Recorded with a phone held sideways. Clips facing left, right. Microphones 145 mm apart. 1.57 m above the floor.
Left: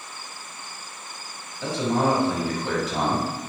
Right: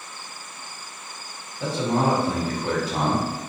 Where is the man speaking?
65° right (ahead or behind), 1.6 m.